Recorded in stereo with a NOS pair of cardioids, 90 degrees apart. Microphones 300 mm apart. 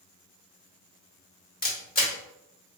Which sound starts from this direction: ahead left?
A camera shutter, at 1.6 s.